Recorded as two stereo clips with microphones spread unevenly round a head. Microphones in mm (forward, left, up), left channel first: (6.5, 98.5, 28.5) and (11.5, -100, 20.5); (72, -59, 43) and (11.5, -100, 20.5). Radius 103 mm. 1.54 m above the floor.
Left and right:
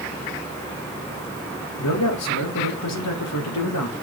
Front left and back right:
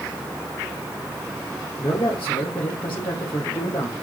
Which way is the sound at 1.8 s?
95° left.